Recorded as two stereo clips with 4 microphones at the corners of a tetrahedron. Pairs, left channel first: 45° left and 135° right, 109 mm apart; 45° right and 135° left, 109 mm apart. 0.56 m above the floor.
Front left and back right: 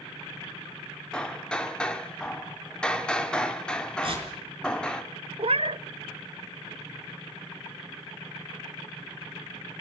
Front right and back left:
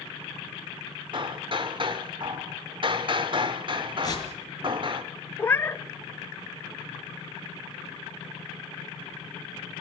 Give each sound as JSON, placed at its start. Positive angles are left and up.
{"t": 1.1, "sound": "hammering", "azimuth_deg": 125, "distance_m": 1.5}
{"t": 4.0, "sound": "tearing paper", "azimuth_deg": -100, "distance_m": 4.5}
{"t": 5.4, "sound": "a cat meowing", "azimuth_deg": -115, "distance_m": 0.5}